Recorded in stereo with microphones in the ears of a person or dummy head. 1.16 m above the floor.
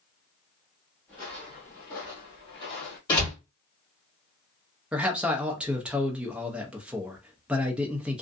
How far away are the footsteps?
About 1.2 m.